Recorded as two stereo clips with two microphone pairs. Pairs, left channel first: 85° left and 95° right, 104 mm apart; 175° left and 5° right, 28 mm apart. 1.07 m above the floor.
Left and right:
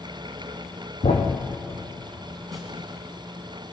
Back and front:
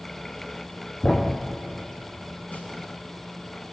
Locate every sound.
1.0 s a thud: 110° left, 2.5 m
2.5 s a snare drum: 175° left, 5 m